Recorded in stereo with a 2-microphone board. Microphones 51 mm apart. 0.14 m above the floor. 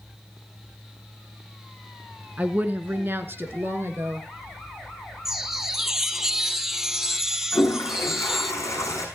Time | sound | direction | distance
2.4 | a woman speaking | 30° right (ahead or behind) | 1.2 m
5.2 | a chime | 10° right (ahead or behind) | 0.7 m
7.5 | a toilet flushing | 80° left | 3 m